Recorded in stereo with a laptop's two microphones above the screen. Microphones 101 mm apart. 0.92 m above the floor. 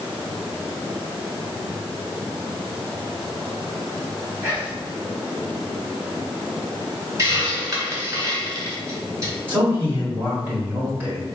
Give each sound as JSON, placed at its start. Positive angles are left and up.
{"t": 4.4, "sound": "whispering", "side_deg": -20, "distance_m": 1.0}
{"t": 7.2, "sound": "a hiss", "side_deg": -35, "distance_m": 1.0}
{"t": 9.5, "sound": "a man speaking", "side_deg": -20, "distance_m": 1.5}